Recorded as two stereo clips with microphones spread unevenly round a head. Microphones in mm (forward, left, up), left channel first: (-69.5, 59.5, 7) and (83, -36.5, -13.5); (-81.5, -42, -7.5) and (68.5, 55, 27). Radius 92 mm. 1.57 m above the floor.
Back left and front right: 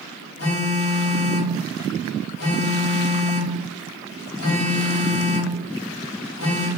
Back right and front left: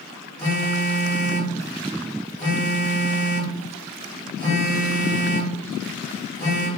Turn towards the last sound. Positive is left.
turn(degrees=135)